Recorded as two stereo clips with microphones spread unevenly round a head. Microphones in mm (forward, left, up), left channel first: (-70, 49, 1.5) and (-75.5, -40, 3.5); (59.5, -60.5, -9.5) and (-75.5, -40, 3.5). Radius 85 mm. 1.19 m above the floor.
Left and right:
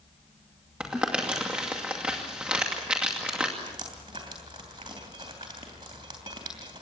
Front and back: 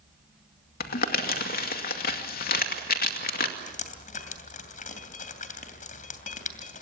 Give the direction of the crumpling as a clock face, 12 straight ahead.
12 o'clock.